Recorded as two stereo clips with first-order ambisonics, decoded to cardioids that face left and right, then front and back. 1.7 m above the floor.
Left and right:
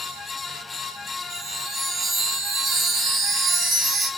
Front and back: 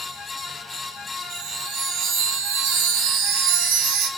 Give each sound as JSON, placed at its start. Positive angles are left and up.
{"t": 1.3, "sound": "a chime", "azimuth_deg": -165, "distance_m": 1.0}